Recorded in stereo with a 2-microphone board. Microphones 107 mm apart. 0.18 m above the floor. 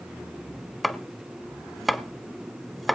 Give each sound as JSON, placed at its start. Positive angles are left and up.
{"t": 0.8, "sound": "chopping", "side_deg": 0, "distance_m": 1.0}